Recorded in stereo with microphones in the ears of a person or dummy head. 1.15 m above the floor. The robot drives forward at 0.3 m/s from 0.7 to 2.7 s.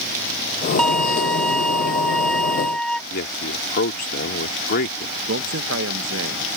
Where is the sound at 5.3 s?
70° right (ahead or behind).